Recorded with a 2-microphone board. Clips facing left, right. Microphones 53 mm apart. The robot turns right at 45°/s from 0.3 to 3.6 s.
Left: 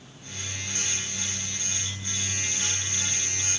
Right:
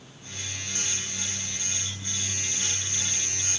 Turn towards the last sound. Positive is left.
No sound to turn to.